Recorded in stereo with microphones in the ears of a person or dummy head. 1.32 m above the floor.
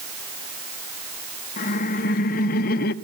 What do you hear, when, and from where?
1.6 s laughter: 40° left (ahead or behind), 2.5 m; by 2.9 s 55° left (ahead or behind), 1.1 m